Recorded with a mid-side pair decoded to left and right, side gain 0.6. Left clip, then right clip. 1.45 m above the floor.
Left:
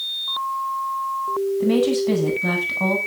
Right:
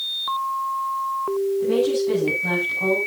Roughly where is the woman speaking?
Ahead left.